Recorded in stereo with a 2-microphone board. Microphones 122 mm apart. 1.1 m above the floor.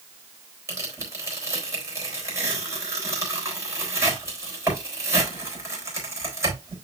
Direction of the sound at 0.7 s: 25° right (ahead or behind).